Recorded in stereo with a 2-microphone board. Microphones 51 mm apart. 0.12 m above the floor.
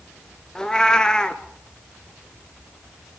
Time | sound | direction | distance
0.6 | a cat meowing | 15° left (ahead or behind) | 0.9 m